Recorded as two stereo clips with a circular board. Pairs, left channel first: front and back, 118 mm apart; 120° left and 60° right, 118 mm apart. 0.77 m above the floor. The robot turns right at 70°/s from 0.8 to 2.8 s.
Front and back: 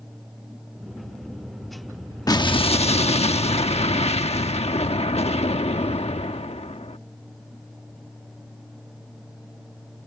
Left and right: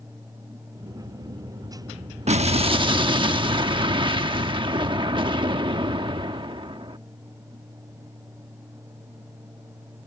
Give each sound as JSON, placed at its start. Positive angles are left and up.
{"t": 2.3, "sound": "an explosion", "azimuth_deg": -55}